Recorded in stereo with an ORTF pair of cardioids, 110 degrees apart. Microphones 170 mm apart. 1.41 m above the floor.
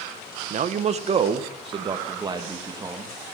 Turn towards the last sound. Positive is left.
turn(degrees=-20)